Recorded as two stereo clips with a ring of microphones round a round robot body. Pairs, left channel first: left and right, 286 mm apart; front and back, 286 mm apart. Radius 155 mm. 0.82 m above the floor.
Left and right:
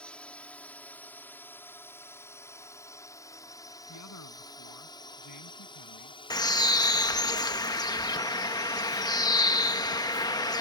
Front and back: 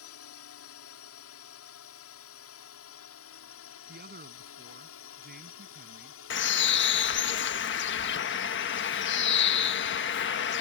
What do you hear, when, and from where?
0.0 s a drone: 5° left; by 10.6 s 30° left
3.9 s a man speaking: 125° left
6.3 s a bird: 20° left